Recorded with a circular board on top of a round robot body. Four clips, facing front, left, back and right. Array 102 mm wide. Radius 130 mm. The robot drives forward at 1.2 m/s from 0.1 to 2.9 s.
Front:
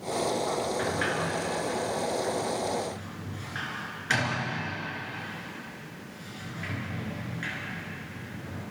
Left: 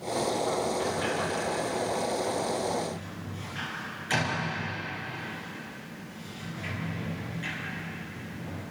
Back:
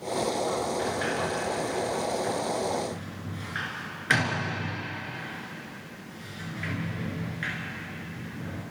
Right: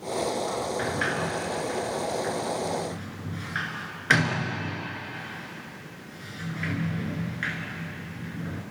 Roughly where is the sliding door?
Right.